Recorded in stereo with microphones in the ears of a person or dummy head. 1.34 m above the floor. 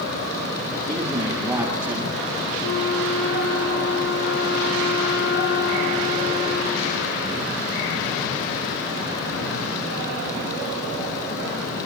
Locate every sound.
0.9 s a man speaking: 20° right (ahead or behind), 9.5 m; by 2.5 s 10° right (ahead or behind), 10 m
2.6 s a flute: 65° left (ahead or behind), 1.7 m